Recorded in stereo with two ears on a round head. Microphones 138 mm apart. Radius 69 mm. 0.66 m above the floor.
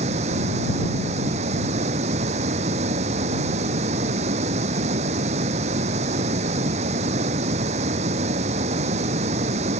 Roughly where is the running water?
Right.